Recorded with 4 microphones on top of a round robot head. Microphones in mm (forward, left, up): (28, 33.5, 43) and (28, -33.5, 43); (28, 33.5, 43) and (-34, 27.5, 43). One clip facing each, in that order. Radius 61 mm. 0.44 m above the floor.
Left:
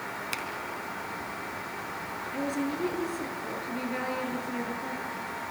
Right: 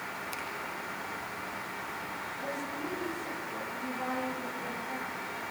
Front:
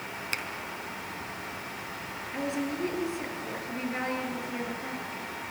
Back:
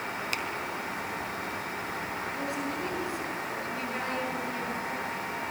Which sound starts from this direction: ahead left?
A finger snap, at 0.3 s.